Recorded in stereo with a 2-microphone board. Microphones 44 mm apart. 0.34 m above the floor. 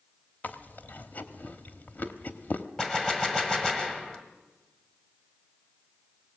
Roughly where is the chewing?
Left.